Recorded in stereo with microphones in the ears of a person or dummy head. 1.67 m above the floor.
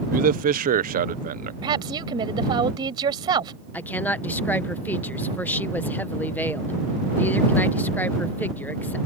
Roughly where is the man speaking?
Right.